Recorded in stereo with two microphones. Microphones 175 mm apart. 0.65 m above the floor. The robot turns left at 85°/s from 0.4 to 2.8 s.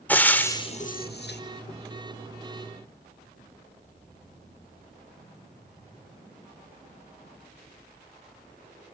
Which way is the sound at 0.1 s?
10° left (ahead or behind).